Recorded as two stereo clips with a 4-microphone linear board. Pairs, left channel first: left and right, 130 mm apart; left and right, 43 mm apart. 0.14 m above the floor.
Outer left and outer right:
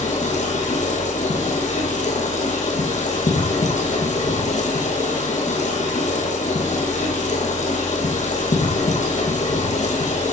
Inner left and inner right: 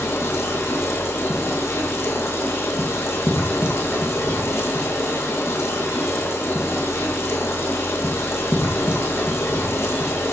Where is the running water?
70° left (ahead or behind), 5.5 m.